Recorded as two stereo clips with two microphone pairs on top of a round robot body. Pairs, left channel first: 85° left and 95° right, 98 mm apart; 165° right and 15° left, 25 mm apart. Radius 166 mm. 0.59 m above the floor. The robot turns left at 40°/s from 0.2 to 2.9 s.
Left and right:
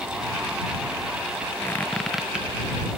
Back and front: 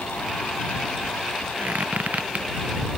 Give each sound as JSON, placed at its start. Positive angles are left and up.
{"t": 1.6, "sound": "a squeak", "azimuth_deg": 20}